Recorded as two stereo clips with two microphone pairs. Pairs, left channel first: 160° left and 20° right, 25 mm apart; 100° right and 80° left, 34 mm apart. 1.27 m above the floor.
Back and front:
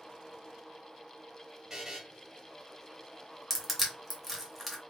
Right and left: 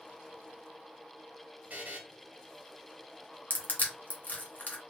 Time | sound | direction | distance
1.7 | a buzzer | 40° left | 0.8 m
3.5 | crushing | 115° right | 0.8 m